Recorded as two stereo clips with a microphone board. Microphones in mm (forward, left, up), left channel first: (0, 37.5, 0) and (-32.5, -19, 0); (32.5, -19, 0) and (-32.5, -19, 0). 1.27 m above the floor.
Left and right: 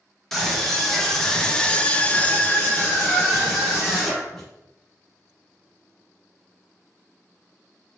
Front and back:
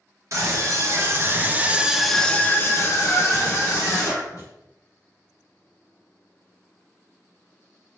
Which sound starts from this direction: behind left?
A scream, at 0.3 s.